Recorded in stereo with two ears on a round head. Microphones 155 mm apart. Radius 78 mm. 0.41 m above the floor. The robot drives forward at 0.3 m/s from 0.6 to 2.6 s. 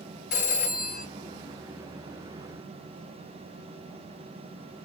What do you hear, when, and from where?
0.3 s a phone ringing: 65° left (ahead or behind), 2.5 m; by 1.1 s 60° left (ahead or behind), 2.5 m